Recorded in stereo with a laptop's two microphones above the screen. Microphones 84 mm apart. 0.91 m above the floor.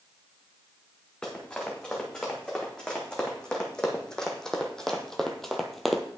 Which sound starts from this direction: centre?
Running footsteps, at 1.2 s.